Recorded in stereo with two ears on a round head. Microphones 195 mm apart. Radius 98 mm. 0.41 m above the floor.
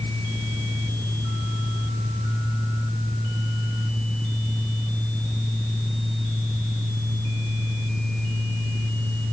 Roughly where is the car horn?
No car horn in this recording.